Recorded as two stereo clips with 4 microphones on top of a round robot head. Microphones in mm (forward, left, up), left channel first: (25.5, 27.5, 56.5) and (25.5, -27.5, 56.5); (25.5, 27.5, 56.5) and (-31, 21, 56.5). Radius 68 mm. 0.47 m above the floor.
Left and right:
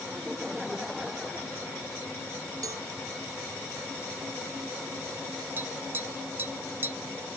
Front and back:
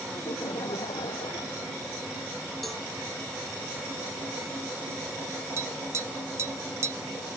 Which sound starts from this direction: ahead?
Laughter, at 0.1 s.